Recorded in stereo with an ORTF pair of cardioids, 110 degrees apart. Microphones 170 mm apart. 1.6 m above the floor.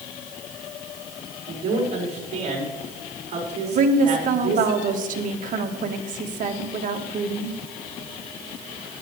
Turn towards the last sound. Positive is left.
turn(degrees=-50)